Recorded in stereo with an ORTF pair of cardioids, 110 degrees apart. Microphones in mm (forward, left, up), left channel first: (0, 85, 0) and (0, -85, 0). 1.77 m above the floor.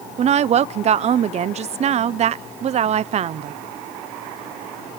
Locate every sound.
0.2 s a woman speaking: 40° right, 0.6 m